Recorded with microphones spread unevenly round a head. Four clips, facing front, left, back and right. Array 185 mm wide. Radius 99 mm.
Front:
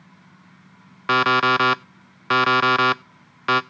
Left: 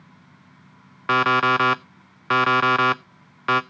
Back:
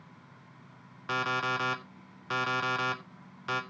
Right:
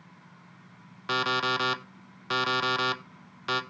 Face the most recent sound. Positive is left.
turn(degrees=35)